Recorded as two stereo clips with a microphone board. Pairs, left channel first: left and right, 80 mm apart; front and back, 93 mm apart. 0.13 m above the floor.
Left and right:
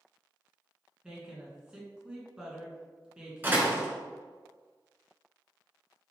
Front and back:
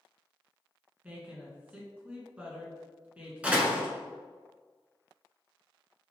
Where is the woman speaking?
145° right, 1.2 m.